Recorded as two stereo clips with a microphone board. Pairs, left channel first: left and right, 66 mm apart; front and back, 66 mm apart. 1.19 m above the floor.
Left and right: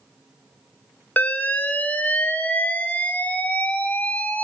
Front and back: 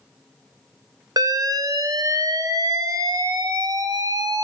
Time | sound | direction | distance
1.2 | an alarm | 155° left | 1.2 m